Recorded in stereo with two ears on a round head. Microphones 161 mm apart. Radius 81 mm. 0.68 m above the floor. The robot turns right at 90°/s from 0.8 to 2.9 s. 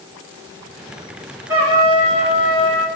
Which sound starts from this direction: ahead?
A trumpet, at 1.5 s.